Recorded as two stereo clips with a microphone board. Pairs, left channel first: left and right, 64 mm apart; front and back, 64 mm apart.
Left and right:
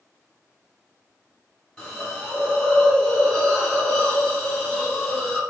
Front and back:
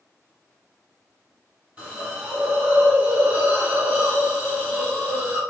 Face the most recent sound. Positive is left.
turn(degrees=165)